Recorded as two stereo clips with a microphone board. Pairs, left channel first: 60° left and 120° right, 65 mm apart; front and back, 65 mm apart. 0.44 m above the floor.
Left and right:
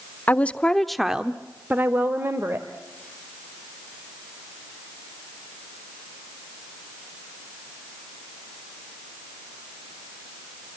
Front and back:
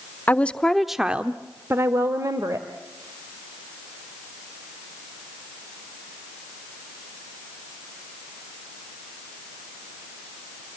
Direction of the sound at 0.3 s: 30° left.